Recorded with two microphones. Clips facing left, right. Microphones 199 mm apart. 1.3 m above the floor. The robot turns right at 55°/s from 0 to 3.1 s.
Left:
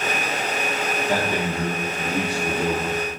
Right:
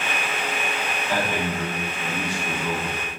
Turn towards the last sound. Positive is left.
turn(degrees=140)